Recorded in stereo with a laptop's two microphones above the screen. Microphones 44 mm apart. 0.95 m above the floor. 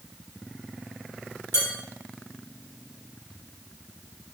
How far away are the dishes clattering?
About 1.9 m.